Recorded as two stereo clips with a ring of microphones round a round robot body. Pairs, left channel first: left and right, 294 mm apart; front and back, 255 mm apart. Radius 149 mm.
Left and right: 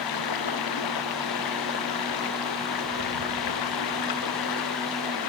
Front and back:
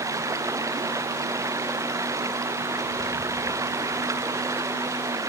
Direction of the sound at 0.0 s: 100° left.